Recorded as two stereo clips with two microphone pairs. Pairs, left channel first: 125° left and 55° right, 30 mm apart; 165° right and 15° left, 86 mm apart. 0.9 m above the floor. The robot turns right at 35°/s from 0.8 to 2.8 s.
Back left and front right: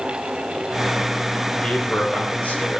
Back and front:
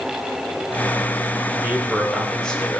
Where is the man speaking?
80° left, 2.5 m; by 2.8 s 125° left, 2.5 m.